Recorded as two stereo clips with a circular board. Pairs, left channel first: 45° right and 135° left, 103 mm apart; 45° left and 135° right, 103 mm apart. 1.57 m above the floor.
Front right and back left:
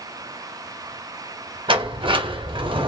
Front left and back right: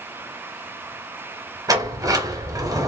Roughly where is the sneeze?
I don't hear a sneeze.